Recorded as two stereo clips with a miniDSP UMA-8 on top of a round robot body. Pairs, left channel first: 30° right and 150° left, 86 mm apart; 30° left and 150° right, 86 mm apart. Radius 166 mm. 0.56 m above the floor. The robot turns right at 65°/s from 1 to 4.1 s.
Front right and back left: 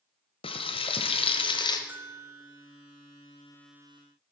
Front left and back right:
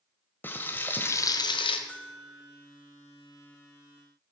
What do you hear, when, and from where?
0.4 s frying: 40° right, 1.1 m; by 1.8 s 10° left, 1.1 m
1.9 s a bell: 95° left, 1.4 m; by 2.7 s 145° left, 1.4 m